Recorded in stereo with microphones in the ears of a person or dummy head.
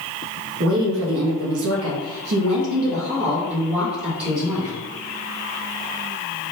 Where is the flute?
I don't hear a flute.